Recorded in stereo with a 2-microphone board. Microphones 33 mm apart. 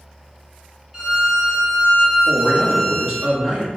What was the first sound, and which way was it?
A violin, 15° right (ahead or behind).